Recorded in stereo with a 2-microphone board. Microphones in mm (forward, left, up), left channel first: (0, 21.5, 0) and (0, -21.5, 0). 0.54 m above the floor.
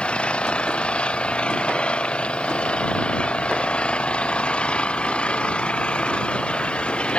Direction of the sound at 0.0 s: 30° left (ahead or behind).